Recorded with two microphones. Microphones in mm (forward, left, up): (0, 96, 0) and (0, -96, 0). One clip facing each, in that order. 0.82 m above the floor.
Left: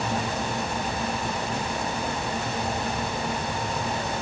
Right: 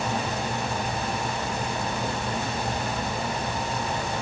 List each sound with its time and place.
Only background noise.